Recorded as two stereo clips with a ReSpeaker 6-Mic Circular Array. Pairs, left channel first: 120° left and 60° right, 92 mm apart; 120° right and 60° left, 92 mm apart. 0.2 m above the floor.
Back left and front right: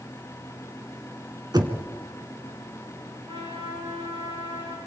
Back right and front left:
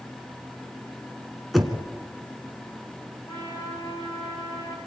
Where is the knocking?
30° right, 2 m.